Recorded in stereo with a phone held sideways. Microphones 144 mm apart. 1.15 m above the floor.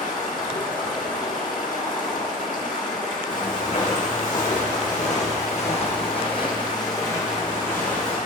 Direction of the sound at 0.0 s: 65° left (ahead or behind).